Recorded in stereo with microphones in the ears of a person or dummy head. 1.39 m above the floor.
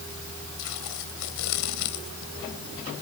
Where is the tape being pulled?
80° left.